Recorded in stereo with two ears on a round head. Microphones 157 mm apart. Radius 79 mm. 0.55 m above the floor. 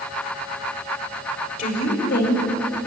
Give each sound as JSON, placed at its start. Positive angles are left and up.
{"t": 1.6, "sound": "a woman speaking", "side_deg": 50, "distance_m": 2.0}